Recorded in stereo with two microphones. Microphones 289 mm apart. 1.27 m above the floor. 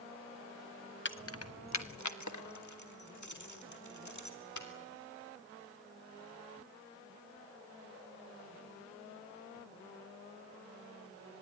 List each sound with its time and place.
1.1 s keys jangling: 40° left (ahead or behind), 0.8 m; by 4.7 s 80° left, 3 m